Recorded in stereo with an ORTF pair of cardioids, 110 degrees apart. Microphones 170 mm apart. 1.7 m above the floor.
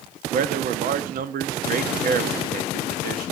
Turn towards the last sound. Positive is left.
turn(degrees=-60)